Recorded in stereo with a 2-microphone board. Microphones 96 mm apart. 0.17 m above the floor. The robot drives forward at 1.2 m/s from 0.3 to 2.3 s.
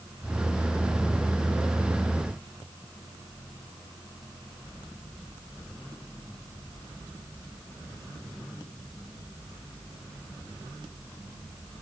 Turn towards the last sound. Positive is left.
No sound to turn to.